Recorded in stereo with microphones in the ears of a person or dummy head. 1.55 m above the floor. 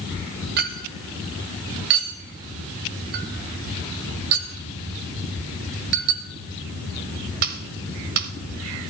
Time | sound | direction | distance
0.6 | a clink | 50° right (ahead or behind) | 0.9 m